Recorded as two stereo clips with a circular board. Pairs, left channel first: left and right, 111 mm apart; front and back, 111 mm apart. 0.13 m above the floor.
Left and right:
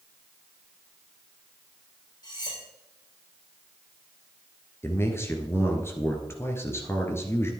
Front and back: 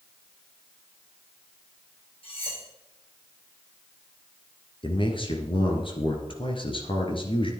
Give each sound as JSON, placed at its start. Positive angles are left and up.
{"t": 2.2, "sound": "cutlery clinking", "azimuth_deg": 35, "distance_m": 4.5}
{"t": 4.8, "sound": "a man speaking", "azimuth_deg": 25, "distance_m": 2.0}